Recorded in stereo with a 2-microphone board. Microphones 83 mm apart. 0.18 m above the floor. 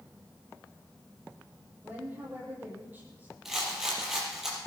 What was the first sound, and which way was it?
A woman speaking, 25° right (ahead or behind).